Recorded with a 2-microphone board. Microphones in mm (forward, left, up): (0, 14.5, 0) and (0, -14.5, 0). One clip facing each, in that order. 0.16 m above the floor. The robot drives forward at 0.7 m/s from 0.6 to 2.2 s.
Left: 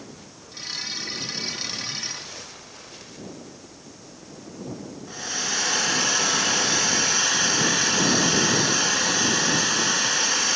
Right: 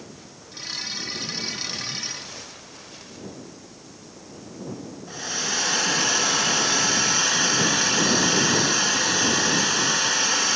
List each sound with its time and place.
5.1 s a hair dryer: centre (ahead or behind), 1.2 m